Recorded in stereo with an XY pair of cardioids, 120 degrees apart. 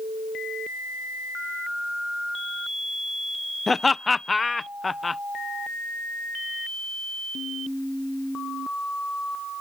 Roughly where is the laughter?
Ahead.